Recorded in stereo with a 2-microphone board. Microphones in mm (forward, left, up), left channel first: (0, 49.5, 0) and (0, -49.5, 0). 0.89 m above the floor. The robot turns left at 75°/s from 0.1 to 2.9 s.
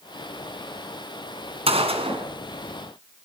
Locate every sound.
1.7 s a gunshot: 80° right, 2.5 m; by 2.2 s 125° right, 2.5 m